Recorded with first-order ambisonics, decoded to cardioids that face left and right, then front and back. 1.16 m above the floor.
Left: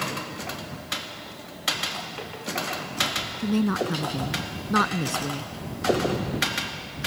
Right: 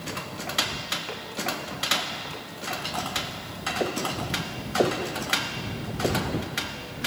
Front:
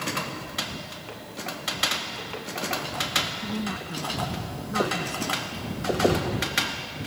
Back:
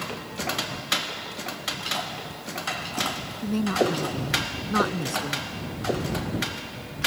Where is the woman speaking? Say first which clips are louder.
Left 5 dB, back 8 dB; 110° left.